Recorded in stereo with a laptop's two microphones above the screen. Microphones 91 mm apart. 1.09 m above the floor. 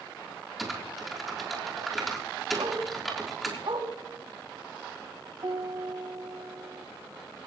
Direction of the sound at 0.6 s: Centre (ahead or behind).